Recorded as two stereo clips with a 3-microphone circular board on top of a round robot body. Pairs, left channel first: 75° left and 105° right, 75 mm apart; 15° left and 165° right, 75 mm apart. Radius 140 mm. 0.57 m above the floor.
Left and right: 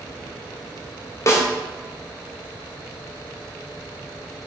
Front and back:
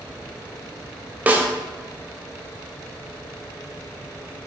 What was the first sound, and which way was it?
A snare drum, 125° left.